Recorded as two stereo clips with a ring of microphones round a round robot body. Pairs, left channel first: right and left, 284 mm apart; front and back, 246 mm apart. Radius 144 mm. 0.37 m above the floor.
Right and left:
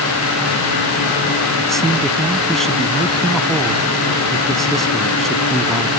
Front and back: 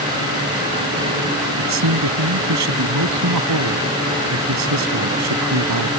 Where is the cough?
I don't hear a cough.